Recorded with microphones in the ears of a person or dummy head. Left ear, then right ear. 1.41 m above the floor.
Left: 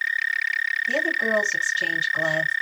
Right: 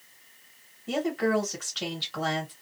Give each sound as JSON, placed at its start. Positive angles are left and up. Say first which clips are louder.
{"t": 0.9, "sound": "a woman speaking", "louder": "left 1 dB", "side_deg": -45, "distance_m": 1.4}